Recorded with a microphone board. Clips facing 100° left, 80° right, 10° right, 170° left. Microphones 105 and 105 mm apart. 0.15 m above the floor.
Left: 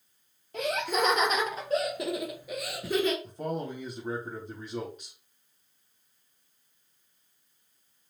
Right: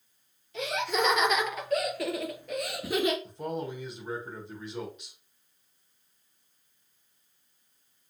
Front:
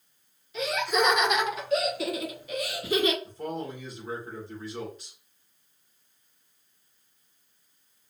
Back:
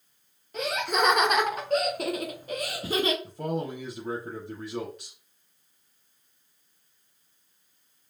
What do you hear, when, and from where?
0.5 s laughter: 135° left, 2.5 m; by 3.1 s 150° right, 1.7 m
3.2 s a man speaking: 145° left, 5 m